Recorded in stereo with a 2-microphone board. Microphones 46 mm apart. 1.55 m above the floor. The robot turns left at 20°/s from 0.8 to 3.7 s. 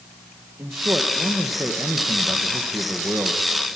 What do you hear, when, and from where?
0.6 s a man speaking: 85° right, 1.5 m; by 3.8 s 145° right, 1.5 m